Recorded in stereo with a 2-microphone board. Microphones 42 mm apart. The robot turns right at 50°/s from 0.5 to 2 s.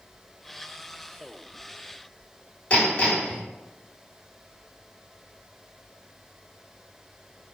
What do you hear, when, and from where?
2.7 s hammering: 35° left (ahead or behind), 1.6 m